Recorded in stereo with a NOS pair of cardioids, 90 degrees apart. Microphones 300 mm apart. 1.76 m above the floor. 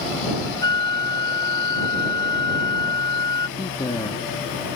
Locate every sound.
0.6 s a flute: 15° left
3.6 s a man speaking: 20° left